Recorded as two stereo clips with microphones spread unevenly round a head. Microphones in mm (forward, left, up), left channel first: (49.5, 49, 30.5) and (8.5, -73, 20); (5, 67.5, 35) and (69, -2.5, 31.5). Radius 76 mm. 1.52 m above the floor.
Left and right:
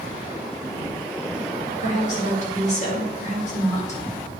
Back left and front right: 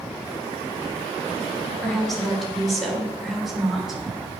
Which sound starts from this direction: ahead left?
A woman speaking, at 1.8 s.